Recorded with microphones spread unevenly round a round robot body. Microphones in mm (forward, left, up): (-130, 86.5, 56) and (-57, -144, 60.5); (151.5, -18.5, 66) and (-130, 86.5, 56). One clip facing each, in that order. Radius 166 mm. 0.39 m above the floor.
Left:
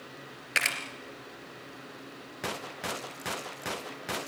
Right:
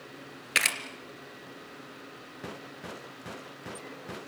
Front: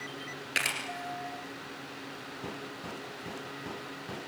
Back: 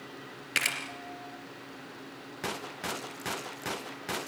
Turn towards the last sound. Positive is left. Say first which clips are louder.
# right 1 dB, back 2 dB
turn(degrees=-120)